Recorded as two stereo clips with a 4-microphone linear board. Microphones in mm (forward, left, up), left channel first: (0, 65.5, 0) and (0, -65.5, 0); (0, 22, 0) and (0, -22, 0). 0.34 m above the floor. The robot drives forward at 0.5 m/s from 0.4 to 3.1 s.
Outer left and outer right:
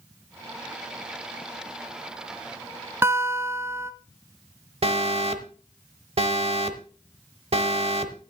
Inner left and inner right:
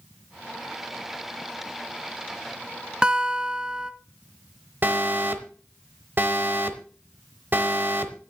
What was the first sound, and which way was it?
A guitar, 20° right (ahead or behind).